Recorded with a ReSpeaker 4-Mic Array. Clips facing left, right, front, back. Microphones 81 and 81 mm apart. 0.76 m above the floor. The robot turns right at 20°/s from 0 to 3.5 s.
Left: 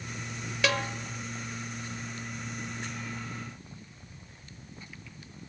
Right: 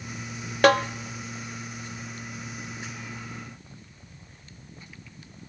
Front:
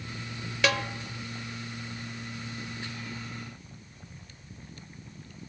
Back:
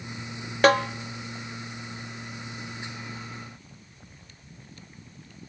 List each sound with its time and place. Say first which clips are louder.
0.6 s a snare drum: right 10 dB, back 9 dB; 130° right, 1.0 m; by 0.8 s 125° right, 1.0 m